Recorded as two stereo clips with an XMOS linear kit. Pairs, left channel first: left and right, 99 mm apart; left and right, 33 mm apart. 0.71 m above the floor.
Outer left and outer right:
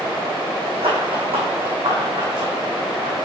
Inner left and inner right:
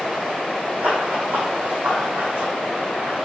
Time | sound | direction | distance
0.8 | running footsteps | 65° right (ahead or behind) | 2.5 m